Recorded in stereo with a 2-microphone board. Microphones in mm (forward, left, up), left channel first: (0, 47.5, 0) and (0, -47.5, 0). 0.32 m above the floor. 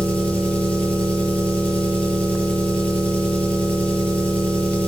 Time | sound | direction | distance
0.0 | an engine running | 15° left (ahead or behind) | 6 m